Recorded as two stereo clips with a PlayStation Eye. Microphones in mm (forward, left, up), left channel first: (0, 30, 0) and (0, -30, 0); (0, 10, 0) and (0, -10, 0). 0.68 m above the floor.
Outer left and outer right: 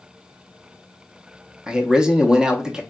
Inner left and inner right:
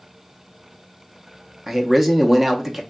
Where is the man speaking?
15° right (ahead or behind), 0.6 m.